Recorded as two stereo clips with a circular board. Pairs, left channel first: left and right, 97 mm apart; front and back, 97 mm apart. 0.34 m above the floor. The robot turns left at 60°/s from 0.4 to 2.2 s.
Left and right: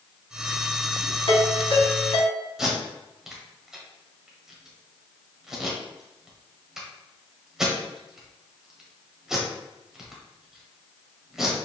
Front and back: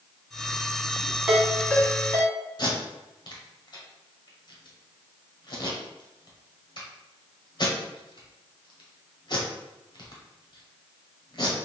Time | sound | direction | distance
1.3 | a ringtone | 105° left | 1.6 m
2.6 | tape being pulled | 10° right | 1.2 m